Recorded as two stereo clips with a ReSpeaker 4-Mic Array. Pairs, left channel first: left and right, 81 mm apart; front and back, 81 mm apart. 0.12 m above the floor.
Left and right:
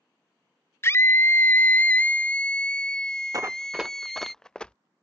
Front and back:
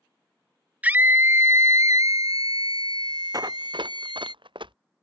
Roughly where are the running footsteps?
Behind right.